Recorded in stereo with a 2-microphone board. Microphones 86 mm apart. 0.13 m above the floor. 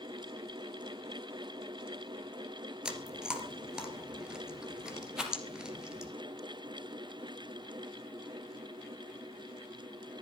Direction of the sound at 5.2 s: 10° right (ahead or behind).